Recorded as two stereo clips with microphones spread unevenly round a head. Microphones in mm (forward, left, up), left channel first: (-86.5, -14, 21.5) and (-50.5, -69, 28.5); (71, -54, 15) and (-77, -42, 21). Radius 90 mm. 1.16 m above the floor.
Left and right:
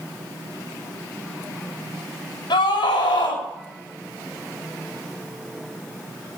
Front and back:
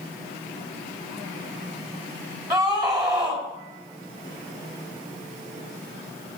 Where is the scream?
100° left, 5.5 m.